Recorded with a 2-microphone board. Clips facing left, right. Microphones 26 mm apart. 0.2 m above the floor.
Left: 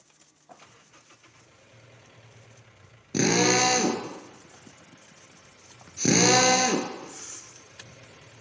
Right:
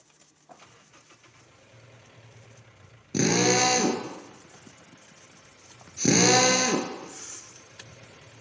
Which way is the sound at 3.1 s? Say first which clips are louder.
Left 1 dB; 15° left (ahead or behind).